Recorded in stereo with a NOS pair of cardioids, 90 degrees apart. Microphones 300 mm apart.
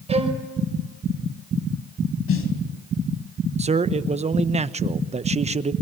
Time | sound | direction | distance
0.1 | a violin | 20° right | 4.5 m
2.3 | a snare drum | 45° left | 3.5 m
3.6 | a man speaking | 25° right | 1.0 m